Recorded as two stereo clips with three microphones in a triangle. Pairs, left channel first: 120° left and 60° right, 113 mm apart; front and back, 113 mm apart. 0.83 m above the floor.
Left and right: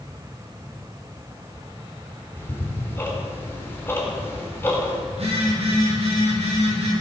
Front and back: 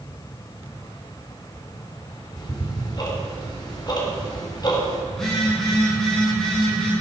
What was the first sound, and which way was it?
Ticking, 50° left.